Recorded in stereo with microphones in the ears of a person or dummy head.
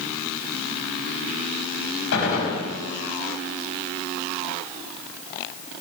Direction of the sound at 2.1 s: 75° left (ahead or behind).